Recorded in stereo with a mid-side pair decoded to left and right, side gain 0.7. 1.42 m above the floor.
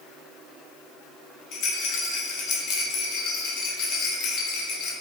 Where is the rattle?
60° left, 0.9 m.